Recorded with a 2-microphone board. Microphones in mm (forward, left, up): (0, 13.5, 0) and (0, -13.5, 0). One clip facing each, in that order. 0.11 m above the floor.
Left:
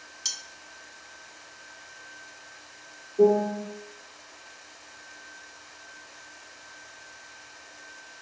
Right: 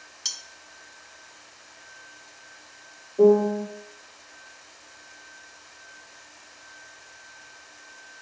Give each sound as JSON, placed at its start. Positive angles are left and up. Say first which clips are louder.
{"t": 0.2, "sound": "cutlery clinking", "louder": "right 1 dB", "side_deg": -10, "distance_m": 0.6}
{"t": 3.2, "sound": "a piano", "louder": "right 3 dB", "side_deg": -20, "distance_m": 1.4}